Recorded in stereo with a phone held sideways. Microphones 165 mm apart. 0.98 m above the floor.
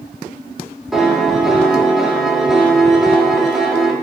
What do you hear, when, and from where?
0.9 s a piano: centre (ahead or behind), 2 m